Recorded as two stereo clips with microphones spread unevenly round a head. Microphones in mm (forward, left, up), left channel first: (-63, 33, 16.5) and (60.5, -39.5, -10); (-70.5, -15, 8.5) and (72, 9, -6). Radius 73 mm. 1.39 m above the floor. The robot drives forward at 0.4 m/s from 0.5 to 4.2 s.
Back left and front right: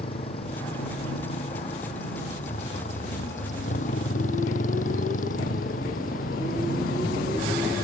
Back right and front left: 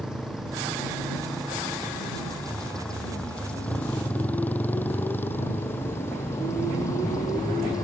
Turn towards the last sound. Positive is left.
turn(degrees=125)